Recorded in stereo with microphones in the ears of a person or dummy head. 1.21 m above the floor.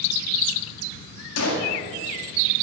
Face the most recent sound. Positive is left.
turn(degrees=80)